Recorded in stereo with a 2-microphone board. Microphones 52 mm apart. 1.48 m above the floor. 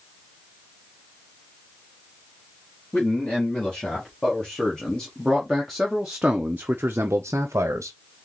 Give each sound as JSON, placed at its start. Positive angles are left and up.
{"t": 2.9, "sound": "a man speaking", "side_deg": 20, "distance_m": 2.5}